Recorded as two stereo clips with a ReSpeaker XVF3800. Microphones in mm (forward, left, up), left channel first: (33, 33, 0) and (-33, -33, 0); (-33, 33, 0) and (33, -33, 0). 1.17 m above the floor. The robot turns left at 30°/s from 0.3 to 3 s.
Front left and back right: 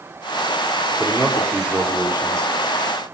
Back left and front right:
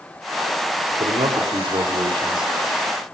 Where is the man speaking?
35° right, 4 m; by 2.5 s 80° right, 4 m.